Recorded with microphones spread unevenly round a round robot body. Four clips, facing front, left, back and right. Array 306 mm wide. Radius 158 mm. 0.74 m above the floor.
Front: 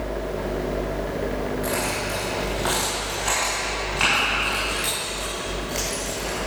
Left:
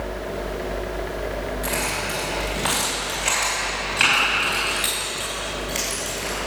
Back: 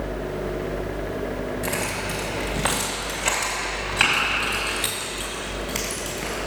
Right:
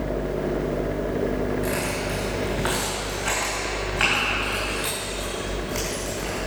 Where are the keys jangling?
170° right, 2.5 m; by 6.4 s 175° left, 5.5 m.